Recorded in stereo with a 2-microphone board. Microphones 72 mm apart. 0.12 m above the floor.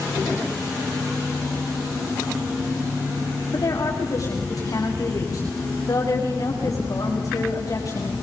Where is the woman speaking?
50° left (ahead or behind), 8 m.